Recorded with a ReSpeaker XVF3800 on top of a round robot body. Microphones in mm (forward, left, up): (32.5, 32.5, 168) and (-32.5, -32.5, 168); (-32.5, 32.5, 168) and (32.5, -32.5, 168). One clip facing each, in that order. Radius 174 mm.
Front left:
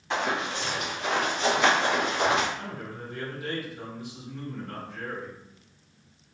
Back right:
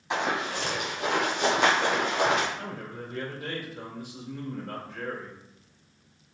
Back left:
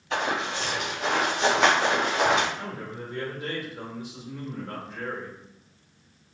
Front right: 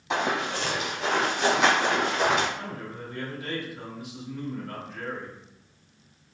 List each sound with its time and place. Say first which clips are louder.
0.1 s running footsteps: even, front right 1 dB; 55° right, 0.9 m; by 2.5 s 175° right, 2 m
2.6 s a man speaking: even, back left 1 dB; 175° right, 1.9 m